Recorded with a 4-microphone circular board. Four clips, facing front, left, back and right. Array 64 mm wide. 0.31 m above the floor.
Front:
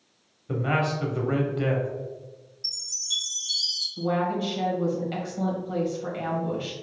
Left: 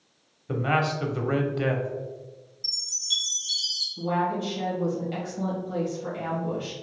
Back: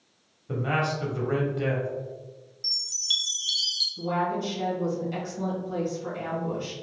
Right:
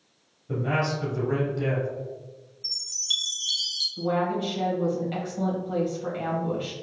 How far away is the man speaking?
About 1.1 m.